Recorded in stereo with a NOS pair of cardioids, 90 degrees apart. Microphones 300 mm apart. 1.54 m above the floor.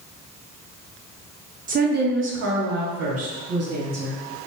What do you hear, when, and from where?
1.7 s a woman speaking: 30° right, 0.5 m; by 4.2 s 55° right, 1.7 m